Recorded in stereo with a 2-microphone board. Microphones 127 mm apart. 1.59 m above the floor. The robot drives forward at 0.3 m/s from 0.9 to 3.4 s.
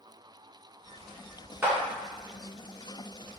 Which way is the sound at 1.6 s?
20° right (ahead or behind).